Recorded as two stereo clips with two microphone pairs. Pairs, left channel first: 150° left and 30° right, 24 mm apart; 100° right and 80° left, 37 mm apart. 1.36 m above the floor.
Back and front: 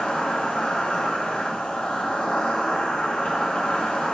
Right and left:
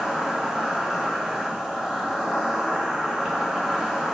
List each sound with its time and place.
0.0 s an insect: 160° left, 2 m